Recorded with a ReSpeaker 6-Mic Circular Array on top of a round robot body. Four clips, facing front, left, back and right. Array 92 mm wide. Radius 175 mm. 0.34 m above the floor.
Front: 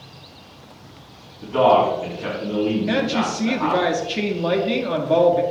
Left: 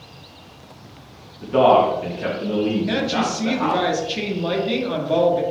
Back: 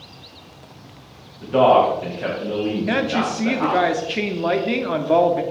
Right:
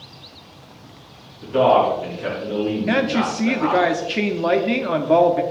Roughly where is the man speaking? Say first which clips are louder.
Left 1 dB, back 1 dB; behind left.